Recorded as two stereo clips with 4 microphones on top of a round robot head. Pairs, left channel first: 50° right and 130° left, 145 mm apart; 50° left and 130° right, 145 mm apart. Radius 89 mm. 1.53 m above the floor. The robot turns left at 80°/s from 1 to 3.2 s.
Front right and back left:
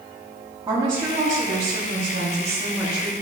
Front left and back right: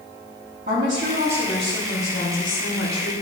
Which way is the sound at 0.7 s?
165° right.